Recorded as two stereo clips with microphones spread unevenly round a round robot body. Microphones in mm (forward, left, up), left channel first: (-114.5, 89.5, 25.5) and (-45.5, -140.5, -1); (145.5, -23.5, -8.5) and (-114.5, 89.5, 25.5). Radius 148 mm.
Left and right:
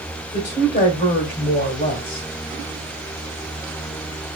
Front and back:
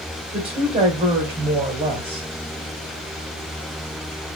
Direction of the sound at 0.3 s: 90° left.